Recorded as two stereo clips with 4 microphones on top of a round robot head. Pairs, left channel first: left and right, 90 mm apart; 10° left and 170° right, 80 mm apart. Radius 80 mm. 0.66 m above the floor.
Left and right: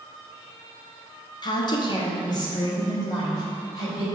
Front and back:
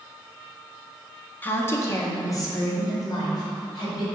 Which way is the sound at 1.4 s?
75° left.